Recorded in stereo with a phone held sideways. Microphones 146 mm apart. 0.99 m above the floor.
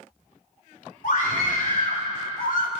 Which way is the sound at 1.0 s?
70° left (ahead or behind).